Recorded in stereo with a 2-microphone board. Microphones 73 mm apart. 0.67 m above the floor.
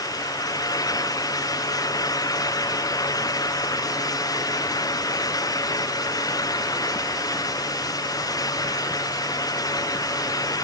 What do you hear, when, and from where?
Only background noise.